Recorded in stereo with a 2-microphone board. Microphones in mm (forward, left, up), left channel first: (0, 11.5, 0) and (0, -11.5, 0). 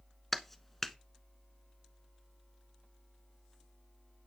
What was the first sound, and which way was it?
A clap, 10° left (ahead or behind).